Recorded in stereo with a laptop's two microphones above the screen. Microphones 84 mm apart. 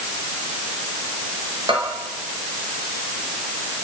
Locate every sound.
1.7 s a bell: 85° right, 5 m